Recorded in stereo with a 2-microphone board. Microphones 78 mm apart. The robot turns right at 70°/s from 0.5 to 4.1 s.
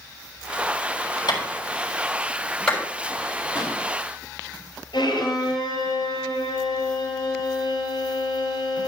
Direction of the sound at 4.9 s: 75° left (ahead or behind).